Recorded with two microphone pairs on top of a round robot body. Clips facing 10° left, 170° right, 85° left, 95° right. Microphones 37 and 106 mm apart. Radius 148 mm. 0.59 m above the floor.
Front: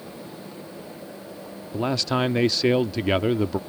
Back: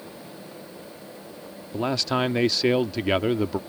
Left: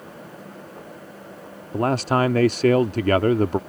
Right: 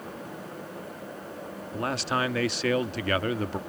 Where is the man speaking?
100° left.